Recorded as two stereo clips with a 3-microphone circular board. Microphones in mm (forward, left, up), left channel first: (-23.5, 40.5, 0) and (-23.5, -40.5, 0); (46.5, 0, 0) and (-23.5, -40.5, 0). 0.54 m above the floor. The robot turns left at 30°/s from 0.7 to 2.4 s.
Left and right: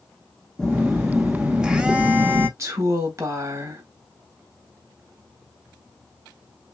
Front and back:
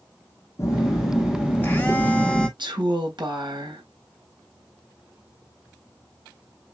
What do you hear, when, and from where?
0.6 s a phone buzzing: 10° left, 0.9 m; by 2.5 s 40° right, 0.9 m
2.6 s a woman speaking: 140° right, 3 m